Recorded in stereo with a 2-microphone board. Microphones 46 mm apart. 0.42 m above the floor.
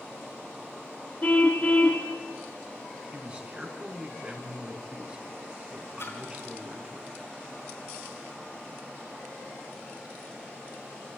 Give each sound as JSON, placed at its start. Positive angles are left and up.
{"t": 1.2, "sound": "a car horn", "side_deg": 35, "distance_m": 2.0}
{"t": 3.1, "sound": "a man speaking", "side_deg": -25, "distance_m": 4.0}
{"t": 6.0, "sound": "a splash", "side_deg": 60, "distance_m": 4.0}